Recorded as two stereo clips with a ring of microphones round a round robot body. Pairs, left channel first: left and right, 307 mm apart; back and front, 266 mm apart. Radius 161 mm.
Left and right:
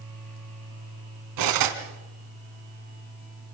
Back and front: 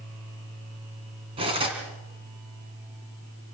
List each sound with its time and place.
1.4 s cutlery clinking: 75° right, 3 m